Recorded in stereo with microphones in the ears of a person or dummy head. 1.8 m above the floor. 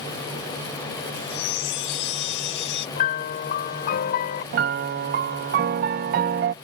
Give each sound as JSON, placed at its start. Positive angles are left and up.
{"t": 1.1, "sound": "a chime", "side_deg": 65}
{"t": 3.0, "sound": "a piano", "side_deg": 50}
{"t": 4.5, "sound": "a piano", "side_deg": -40}